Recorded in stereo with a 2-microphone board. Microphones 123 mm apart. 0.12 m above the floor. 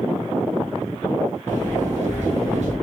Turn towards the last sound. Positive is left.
turn(degrees=-70)  # may be behind; listen again after turning